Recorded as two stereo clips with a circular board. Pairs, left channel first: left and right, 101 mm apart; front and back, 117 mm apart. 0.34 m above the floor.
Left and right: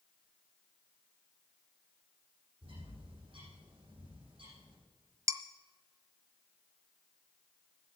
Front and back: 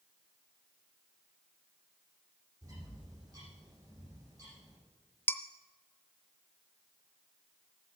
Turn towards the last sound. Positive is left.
turn(degrees=-60)